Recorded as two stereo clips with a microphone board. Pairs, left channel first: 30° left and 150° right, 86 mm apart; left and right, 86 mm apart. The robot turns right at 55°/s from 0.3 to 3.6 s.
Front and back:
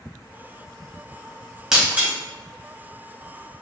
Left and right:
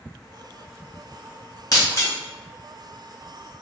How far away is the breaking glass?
About 1.8 m.